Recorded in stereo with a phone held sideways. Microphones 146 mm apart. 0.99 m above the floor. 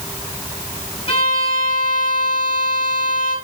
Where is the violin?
35° left (ahead or behind), 5 m.